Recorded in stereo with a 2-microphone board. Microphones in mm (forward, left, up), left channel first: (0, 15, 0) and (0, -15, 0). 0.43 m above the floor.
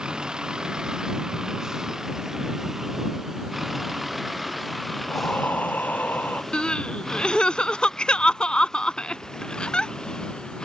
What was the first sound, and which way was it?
A vehicle, 25° right (ahead or behind).